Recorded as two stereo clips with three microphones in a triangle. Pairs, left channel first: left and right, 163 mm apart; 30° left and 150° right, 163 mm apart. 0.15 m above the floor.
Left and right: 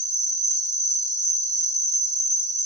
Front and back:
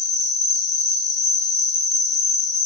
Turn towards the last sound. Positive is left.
turn(degrees=-20)